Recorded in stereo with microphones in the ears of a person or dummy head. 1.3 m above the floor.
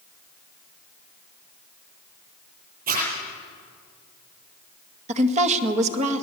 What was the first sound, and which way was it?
A zipper, 55° right (ahead or behind).